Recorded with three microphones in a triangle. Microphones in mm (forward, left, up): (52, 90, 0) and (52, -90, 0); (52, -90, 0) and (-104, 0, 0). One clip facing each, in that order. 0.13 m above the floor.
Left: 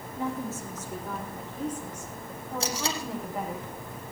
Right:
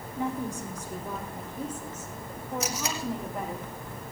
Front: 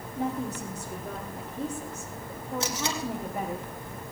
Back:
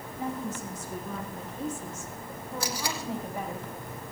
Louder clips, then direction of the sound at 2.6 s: Left 3 dB, front 1 dB; 35° left.